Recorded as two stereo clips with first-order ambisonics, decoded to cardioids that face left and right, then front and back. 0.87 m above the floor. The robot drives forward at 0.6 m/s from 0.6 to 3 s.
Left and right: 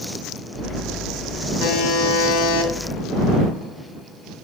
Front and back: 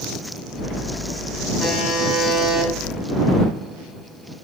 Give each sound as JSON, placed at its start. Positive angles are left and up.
{"t": 1.6, "sound": "a buzzer", "azimuth_deg": 65, "distance_m": 2.0}